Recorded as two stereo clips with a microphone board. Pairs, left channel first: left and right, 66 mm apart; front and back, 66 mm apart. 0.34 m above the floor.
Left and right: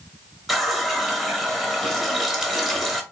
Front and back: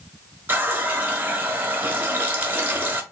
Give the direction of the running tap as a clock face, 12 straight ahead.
6 o'clock.